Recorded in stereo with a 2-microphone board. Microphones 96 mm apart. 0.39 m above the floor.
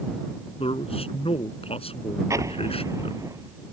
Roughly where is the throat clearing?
No throat clearing in this recording.